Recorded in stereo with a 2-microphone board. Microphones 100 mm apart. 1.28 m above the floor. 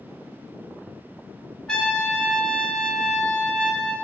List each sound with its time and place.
1.7 s a trumpet: 10° left (ahead or behind), 1.4 m